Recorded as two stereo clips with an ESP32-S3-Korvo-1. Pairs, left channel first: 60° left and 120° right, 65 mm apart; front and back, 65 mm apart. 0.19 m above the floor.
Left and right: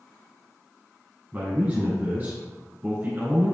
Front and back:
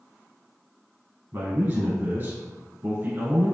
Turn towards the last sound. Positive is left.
turn(degrees=-155)